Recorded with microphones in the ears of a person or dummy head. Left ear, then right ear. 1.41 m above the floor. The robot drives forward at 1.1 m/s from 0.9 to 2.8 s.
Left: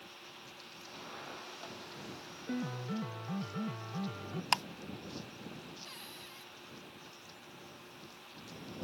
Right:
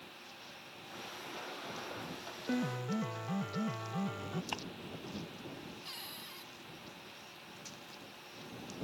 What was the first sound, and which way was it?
A piano, 25° right (ahead or behind).